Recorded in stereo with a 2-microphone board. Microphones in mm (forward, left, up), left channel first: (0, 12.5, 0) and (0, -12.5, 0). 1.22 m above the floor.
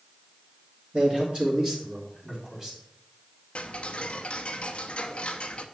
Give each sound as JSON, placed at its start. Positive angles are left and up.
{"t": 0.9, "sound": "a man speaking", "side_deg": -45, "distance_m": 2.0}
{"t": 3.5, "sound": "ticking", "side_deg": 45, "distance_m": 0.8}